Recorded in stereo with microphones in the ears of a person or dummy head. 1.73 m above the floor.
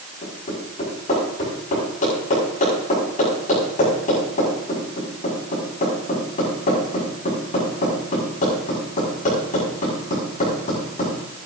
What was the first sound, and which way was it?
Hammering, 45° left (ahead or behind).